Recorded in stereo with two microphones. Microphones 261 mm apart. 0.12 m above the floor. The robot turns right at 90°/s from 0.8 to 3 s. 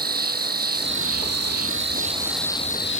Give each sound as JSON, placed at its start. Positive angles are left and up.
{"t": 0.0, "sound": "an insect", "azimuth_deg": -140}